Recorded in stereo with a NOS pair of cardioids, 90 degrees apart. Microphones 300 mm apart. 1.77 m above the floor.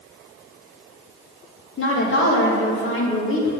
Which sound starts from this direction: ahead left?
A woman speaking, at 1.8 s.